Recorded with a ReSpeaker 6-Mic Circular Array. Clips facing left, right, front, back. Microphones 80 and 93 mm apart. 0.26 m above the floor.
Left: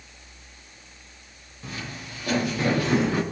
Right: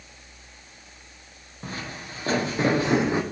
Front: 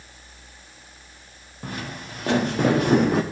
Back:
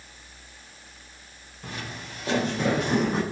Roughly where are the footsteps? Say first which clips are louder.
Right 1 dB, front 4 dB; ahead right.